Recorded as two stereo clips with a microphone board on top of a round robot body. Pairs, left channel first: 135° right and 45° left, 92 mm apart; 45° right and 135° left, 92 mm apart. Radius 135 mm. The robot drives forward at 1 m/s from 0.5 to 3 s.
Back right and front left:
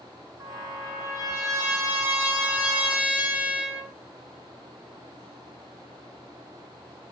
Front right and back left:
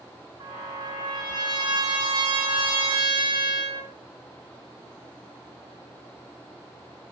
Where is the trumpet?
100° left, 6 m; by 3.9 s 125° left, 7 m.